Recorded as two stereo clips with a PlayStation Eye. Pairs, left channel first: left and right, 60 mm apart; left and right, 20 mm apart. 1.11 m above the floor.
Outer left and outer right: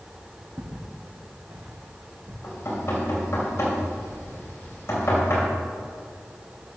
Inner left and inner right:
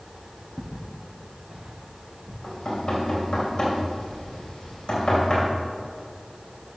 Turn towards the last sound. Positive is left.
turn(degrees=45)  # may be behind; listen again after turning